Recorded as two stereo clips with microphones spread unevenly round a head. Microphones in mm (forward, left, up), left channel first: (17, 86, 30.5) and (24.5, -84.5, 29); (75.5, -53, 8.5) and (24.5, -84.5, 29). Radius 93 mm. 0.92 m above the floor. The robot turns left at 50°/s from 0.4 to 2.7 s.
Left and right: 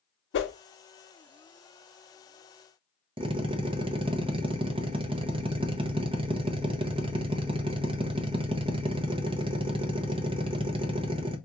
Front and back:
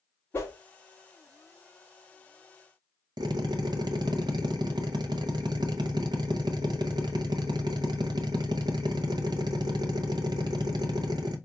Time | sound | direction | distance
0.3 | a whoosh | 90° left | 0.7 m
3.2 | a drill | 150° right | 0.5 m